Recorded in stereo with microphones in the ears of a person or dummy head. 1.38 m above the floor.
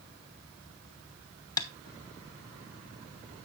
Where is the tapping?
20° left (ahead or behind), 1.0 m.